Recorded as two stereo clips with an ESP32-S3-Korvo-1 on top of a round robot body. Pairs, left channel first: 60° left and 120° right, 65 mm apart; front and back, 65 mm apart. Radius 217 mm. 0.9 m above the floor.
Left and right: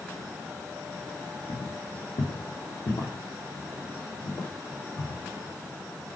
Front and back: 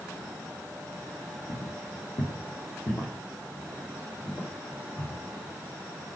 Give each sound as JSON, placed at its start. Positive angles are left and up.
{"t": 1.5, "sound": "footsteps", "azimuth_deg": 40, "distance_m": 1.3}